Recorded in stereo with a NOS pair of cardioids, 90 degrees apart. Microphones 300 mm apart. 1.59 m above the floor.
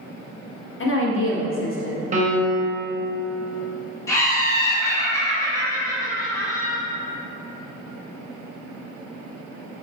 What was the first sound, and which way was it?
A woman speaking, 45° left.